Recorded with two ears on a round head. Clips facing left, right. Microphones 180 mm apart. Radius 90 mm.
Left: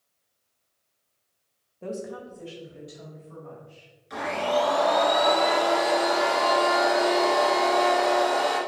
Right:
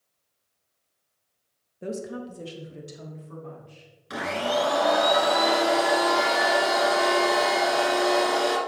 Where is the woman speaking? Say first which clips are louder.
Right 2 dB; 15° right (ahead or behind), 0.9 m; by 3.9 s 70° right (ahead or behind), 3.5 m.